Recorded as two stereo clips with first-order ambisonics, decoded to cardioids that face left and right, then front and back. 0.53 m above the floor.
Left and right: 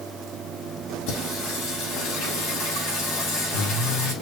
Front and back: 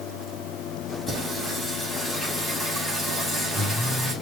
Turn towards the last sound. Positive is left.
turn(degrees=95)